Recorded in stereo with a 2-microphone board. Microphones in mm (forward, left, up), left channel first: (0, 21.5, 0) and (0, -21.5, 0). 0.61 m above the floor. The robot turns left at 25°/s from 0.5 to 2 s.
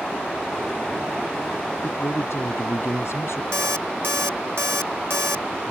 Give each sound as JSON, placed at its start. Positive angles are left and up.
{"t": 1.8, "sound": "a man speaking", "side_deg": 80}
{"t": 3.5, "sound": "an alarm clock", "side_deg": -65}